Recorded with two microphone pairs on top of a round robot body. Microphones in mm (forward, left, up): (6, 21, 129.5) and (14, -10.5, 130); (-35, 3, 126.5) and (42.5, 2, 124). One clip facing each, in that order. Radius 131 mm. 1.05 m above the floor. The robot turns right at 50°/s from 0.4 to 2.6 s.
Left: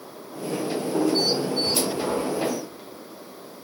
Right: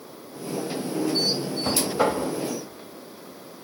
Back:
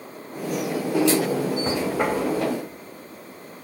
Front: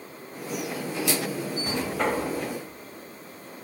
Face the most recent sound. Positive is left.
turn(degrees=-70)